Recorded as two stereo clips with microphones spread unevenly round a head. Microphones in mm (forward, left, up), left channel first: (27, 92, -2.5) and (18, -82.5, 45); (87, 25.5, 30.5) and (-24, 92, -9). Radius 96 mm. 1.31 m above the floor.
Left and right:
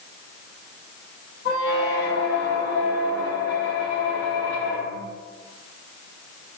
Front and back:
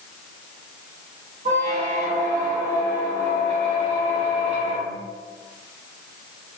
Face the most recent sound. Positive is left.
turn(degrees=115)